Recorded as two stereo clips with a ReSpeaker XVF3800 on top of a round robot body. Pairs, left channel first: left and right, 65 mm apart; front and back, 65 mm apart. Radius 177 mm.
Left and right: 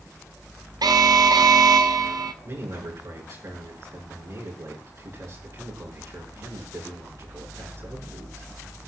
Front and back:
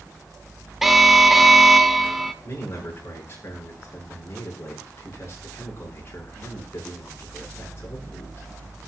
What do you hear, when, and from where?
0.8 s an alarm: 90° right, 1.3 m
2.4 s a man speaking: 55° right, 7.5 m